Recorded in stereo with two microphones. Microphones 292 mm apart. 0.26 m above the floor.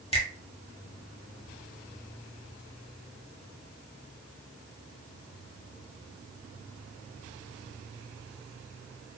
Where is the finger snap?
20° left (ahead or behind), 0.8 m.